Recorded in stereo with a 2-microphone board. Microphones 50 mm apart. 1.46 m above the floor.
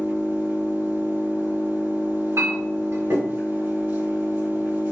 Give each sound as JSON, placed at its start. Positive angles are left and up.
{"t": 0.0, "sound": "an engine running", "side_deg": -50, "distance_m": 1.5}
{"t": 2.4, "sound": "a clink", "side_deg": -65, "distance_m": 1.7}